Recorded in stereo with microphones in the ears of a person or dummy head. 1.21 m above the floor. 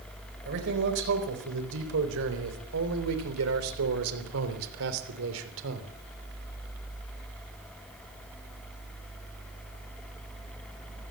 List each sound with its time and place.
0.5 s a man speaking: 60° right (ahead or behind), 4.5 m; by 5.9 s 70° right (ahead or behind), 3.5 m